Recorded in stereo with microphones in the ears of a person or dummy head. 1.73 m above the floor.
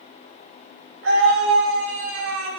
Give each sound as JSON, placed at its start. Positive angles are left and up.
{"t": 1.0, "sound": "a scream", "side_deg": -85, "distance_m": 6.5}